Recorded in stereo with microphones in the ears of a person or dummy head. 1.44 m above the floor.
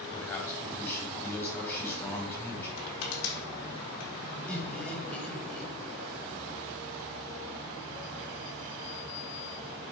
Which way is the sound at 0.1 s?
15° left (ahead or behind).